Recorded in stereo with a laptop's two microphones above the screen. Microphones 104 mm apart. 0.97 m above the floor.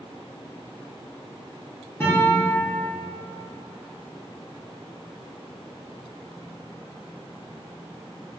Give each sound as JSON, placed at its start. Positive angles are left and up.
{"t": 2.0, "sound": "a guitar", "side_deg": 20, "distance_m": 1.0}